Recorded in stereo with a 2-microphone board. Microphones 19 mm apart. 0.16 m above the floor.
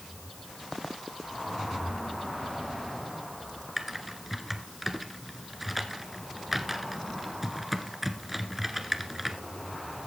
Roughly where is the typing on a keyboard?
Centre.